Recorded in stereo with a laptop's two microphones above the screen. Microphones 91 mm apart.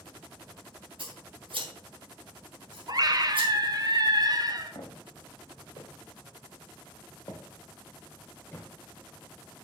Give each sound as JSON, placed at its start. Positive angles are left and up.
{"t": 1.0, "sound": "scissors", "side_deg": -70, "distance_m": 3.0}
{"t": 2.9, "sound": "a scream", "side_deg": -45, "distance_m": 1.3}
{"t": 4.8, "sound": "footsteps", "side_deg": 60, "distance_m": 2.5}